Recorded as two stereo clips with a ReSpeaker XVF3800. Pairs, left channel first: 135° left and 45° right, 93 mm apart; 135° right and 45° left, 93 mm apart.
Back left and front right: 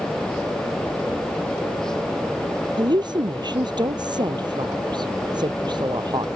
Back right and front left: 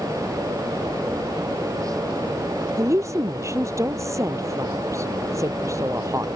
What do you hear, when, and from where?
2.8 s a woman speaking: 10° right